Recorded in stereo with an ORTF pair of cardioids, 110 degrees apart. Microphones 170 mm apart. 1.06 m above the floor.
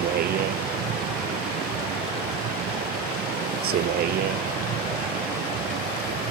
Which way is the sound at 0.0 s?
65° right.